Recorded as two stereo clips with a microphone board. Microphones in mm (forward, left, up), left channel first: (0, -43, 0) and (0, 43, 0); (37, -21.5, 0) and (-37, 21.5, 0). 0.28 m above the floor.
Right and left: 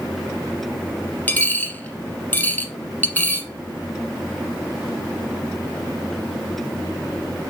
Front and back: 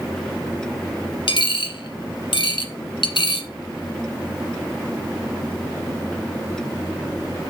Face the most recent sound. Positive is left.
turn(degrees=-20)